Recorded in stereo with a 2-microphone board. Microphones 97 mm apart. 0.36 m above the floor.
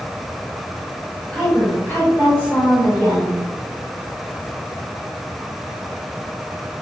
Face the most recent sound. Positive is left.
turn(degrees=45)  # may be behind; listen again after turning